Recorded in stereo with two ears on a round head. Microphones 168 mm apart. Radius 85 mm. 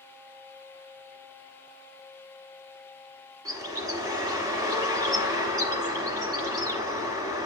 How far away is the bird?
About 2 m.